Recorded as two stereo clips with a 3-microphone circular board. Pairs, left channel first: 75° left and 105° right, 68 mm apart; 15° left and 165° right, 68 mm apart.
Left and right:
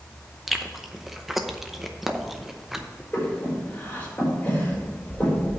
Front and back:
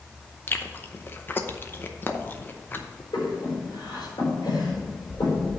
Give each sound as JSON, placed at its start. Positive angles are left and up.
{"t": 0.5, "sound": "chewing", "azimuth_deg": -20, "distance_m": 0.7}
{"t": 3.1, "sound": "breathing", "azimuth_deg": 5, "distance_m": 4.0}